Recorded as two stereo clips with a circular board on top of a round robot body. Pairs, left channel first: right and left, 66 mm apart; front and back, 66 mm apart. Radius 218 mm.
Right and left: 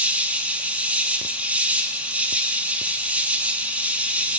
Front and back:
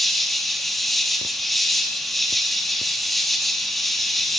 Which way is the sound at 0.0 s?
85° left.